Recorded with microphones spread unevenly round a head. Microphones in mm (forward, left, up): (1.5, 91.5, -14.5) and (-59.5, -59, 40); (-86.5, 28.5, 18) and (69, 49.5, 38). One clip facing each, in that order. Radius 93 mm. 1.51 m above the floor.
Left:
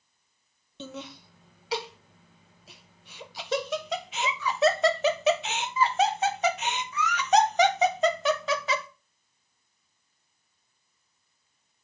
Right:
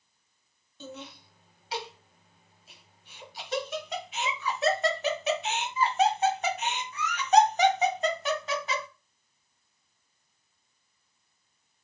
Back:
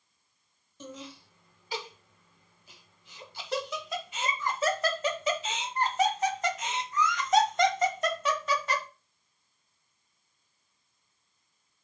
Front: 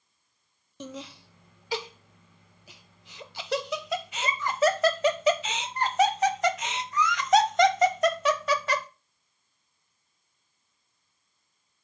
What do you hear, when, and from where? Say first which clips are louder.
0.8 s laughter: left 3 dB, front 4 dB; 30° left, 1.0 m